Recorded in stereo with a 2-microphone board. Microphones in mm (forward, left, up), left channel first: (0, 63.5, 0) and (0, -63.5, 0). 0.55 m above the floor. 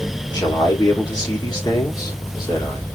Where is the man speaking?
30° left (ahead or behind), 1.4 m.